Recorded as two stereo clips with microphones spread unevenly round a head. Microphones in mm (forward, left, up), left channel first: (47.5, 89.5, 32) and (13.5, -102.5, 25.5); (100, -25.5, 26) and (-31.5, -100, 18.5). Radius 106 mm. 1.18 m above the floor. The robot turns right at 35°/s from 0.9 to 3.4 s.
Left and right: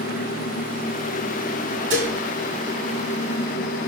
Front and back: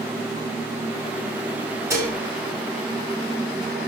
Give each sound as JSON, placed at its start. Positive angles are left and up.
{"t": 1.9, "sound": "dishes clattering", "azimuth_deg": -80, "distance_m": 6.5}